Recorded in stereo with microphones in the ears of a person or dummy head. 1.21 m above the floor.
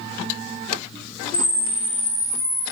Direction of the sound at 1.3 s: 75° left (ahead or behind).